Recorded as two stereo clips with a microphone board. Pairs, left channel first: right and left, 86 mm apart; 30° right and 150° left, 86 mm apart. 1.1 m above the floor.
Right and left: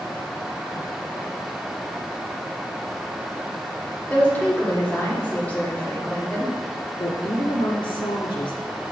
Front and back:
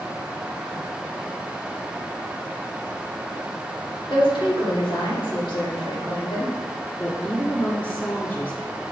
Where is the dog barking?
No dog barking in this recording.